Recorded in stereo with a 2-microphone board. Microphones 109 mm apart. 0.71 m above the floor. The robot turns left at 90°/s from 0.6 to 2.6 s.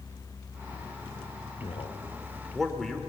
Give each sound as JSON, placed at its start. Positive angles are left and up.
{"t": 1.6, "sound": "a man speaking", "side_deg": 70, "distance_m": 2.5}